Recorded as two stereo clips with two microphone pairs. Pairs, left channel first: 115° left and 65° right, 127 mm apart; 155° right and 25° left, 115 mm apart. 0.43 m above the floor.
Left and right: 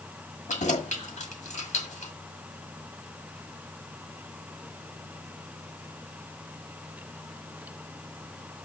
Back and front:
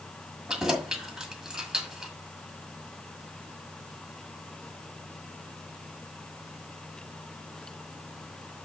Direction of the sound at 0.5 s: 105° left.